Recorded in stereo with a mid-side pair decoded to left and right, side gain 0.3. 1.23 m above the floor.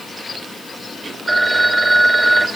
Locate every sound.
1.3 s a phone ringing: 20° right, 2.5 m